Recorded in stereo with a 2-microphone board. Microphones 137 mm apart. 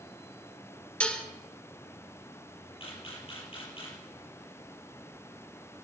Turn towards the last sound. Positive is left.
turn(degrees=40)  # may be behind; listen again after turning